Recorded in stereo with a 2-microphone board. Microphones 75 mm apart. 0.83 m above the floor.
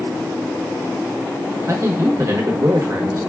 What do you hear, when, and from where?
1.7 s a man speaking: 40° right (ahead or behind), 0.8 m